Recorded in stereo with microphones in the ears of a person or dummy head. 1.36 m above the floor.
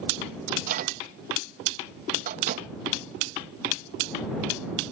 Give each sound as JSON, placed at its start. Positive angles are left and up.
{"t": 0.5, "sound": "a microwave", "side_deg": -50}